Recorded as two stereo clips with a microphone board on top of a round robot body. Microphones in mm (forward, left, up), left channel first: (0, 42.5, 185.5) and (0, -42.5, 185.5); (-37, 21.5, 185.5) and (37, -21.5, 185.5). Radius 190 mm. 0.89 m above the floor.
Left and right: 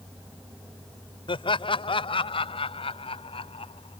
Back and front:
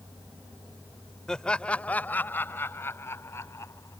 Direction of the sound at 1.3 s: 65° left.